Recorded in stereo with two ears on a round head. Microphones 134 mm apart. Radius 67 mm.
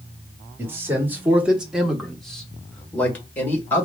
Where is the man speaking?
15° right (ahead or behind), 1.2 m; by 3.9 s 15° left (ahead or behind), 2.0 m.